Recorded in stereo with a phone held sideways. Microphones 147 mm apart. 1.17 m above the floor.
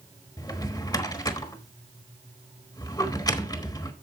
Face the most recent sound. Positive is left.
turn(degrees=25)  # may be behind; listen again after turning